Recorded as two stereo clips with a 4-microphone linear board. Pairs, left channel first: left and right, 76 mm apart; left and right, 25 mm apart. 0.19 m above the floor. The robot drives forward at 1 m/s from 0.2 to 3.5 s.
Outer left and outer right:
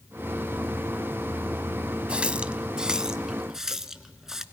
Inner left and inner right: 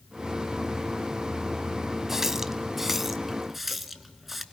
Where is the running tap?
15° right (ahead or behind), 0.7 m; by 4.4 s 5° right (ahead or behind), 1.5 m.